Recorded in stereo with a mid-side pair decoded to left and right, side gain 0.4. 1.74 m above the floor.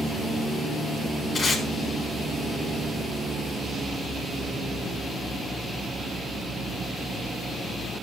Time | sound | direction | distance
1.4 | tape being pulled | 45° left | 3.5 m